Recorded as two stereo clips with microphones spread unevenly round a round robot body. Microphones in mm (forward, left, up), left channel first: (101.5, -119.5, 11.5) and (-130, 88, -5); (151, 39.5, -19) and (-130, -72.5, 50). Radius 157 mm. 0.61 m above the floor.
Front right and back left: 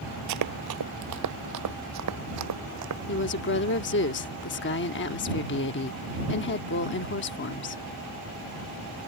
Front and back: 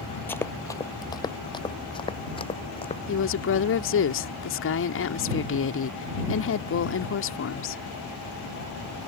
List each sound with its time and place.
0.3 s running footsteps: 115° left; by 3.0 s 100° left
3.1 s a woman speaking: 5° left